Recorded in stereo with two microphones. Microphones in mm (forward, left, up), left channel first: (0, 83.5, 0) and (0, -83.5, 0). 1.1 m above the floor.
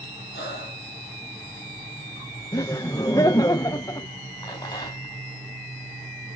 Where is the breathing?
80° left, 6.5 m.